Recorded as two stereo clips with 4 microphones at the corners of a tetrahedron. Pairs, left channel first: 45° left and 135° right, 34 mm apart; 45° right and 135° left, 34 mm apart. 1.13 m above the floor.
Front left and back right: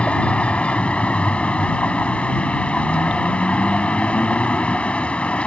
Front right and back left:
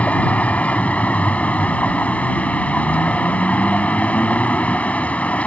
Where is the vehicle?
5° right.